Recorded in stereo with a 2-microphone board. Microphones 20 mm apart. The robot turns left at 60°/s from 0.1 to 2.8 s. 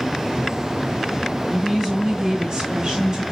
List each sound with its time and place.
1.5 s a woman speaking: straight ahead, 2 m; by 3.2 s 80° right, 2 m